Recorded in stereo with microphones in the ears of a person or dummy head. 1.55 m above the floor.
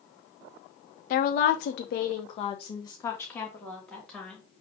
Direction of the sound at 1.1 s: 45° left (ahead or behind).